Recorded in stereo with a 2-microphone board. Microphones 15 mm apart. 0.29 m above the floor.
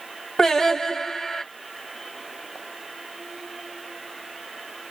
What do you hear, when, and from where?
0.4 s singing: 40° left (ahead or behind), 2 m